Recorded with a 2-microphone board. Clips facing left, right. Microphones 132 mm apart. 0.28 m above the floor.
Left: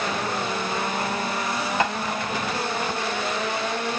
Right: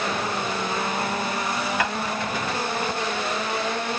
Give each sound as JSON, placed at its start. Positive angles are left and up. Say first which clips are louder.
{"t": 1.8, "sound": "tapping", "louder": "left 4 dB", "side_deg": 25, "distance_m": 0.8}